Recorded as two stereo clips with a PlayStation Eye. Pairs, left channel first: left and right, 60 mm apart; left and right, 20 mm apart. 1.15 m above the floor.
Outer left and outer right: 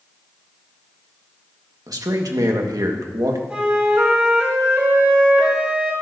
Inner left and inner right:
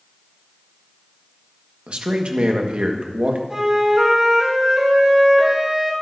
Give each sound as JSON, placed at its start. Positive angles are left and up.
{"t": 1.9, "sound": "a man speaking", "side_deg": -80, "distance_m": 1.5}
{"t": 3.5, "sound": "a flute", "side_deg": -25, "distance_m": 5.5}